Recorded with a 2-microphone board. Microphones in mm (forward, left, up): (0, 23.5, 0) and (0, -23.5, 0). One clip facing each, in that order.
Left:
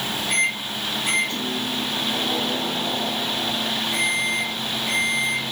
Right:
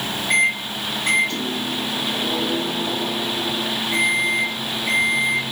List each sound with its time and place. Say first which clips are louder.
0.3 s a microwave: right 6 dB; 55° right (ahead or behind), 1.4 m